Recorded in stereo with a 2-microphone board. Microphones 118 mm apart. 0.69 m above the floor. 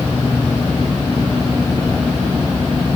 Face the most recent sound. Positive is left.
No sound to turn to.